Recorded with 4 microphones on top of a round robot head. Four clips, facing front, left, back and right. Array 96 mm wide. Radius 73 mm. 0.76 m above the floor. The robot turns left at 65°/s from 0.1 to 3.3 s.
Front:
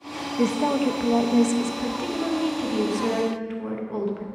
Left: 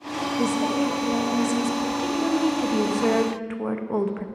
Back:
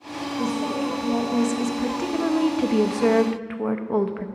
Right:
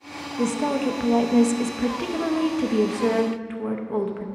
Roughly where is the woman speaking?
Ahead.